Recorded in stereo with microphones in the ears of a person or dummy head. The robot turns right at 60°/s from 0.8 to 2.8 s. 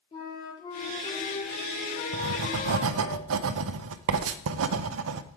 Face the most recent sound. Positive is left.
turn(degrees=-70)  # may be behind; listen again after turning